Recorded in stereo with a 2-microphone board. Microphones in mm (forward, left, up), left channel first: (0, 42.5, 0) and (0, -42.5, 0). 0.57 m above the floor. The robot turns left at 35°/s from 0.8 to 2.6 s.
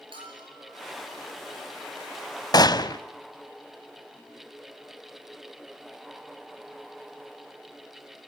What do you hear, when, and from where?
0.1 s a bell: 75° right (ahead or behind), 7 m
2.5 s a gunshot: 50° left (ahead or behind), 0.6 m